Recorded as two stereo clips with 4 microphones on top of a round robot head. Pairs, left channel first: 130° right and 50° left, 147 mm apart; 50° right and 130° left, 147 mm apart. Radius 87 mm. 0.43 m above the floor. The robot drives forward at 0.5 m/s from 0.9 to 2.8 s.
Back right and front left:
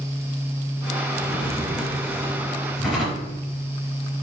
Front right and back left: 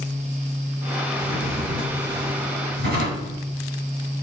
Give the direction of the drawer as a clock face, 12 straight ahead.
8 o'clock.